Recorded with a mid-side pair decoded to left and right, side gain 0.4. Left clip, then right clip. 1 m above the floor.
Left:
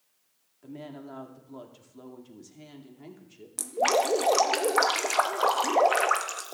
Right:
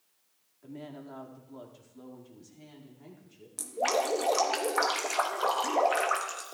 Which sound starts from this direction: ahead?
A woman speaking, at 0.6 s.